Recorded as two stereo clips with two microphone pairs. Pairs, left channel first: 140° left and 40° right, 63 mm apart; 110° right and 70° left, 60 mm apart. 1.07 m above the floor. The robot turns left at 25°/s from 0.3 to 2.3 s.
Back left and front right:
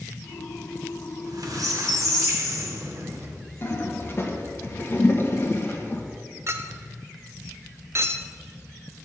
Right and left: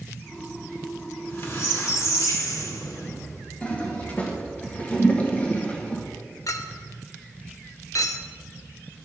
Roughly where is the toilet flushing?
Behind.